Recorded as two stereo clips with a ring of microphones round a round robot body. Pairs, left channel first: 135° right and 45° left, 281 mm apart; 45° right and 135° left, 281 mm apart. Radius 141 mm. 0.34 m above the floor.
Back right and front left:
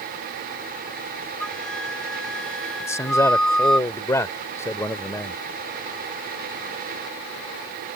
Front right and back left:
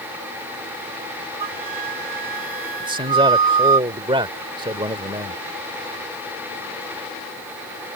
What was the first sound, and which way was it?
A flute, 135° left.